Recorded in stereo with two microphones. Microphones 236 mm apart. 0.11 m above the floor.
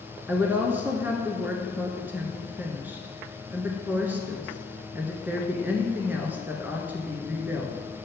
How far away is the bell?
No bell in this recording.